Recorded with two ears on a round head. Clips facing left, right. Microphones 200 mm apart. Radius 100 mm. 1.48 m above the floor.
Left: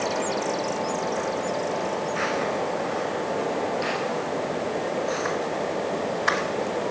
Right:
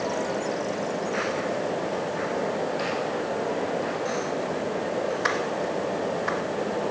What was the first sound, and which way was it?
Only background noise.